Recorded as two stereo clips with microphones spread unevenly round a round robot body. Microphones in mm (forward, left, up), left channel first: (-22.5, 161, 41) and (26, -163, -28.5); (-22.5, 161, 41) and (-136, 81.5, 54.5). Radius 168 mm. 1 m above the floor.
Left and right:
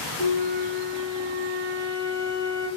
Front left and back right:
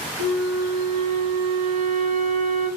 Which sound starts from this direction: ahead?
A flute, at 0.2 s.